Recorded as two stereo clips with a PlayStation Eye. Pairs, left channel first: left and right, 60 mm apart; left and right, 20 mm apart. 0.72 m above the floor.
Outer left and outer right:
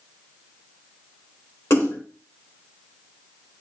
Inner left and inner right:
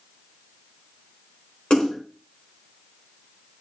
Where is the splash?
55° left (ahead or behind), 2.5 m.